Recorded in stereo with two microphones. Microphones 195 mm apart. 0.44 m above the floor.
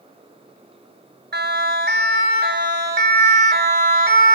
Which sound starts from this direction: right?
A siren, at 1.3 s.